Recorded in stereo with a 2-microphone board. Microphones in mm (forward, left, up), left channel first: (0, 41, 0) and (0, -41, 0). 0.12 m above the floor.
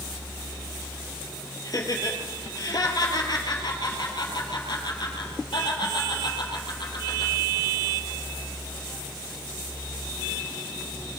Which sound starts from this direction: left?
Laughter, at 1.6 s.